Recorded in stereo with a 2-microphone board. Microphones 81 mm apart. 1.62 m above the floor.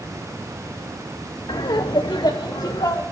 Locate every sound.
1.5 s laughter: 70° left (ahead or behind), 0.8 m; by 3.0 s 50° left (ahead or behind), 1.3 m